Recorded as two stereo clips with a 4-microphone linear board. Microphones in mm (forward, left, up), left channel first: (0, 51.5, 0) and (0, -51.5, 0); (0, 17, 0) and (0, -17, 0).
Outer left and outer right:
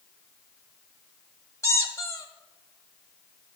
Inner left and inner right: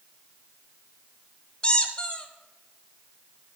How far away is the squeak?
About 1.0 m.